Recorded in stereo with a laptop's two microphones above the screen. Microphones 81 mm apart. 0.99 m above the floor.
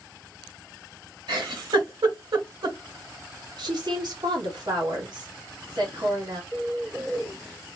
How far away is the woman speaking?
About 1.4 m.